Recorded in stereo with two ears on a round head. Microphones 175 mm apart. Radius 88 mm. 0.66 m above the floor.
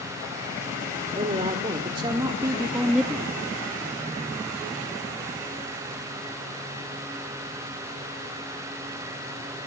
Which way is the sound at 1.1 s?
30° right (ahead or behind).